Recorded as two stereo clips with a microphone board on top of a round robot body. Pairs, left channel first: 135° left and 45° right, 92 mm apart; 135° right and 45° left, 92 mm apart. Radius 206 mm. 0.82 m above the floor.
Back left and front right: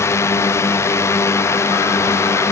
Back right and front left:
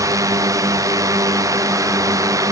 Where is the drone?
85° left.